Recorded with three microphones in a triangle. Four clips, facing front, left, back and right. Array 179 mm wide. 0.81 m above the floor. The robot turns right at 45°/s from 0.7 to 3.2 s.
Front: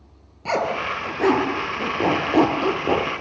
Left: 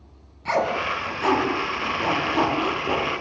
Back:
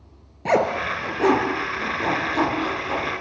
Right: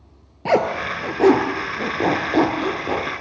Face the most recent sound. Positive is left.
turn(degrees=0)